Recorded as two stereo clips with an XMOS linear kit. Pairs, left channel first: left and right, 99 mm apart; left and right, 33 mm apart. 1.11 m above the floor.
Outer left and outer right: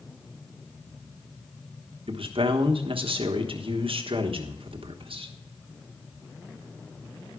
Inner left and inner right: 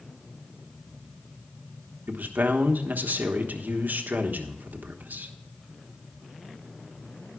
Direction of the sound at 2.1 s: 65° right (ahead or behind).